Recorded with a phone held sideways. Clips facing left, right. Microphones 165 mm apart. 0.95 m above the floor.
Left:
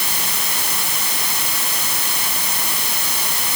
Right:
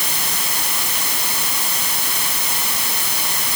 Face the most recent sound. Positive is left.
No sound to turn to.